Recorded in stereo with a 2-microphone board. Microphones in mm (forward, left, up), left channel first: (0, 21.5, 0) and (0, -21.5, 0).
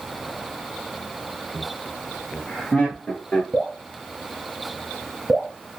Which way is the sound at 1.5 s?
30° left (ahead or behind).